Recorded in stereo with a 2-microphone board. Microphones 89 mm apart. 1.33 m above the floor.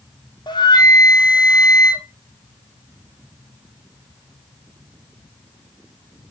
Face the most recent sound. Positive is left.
turn(degrees=55)  # may be behind; listen again after turning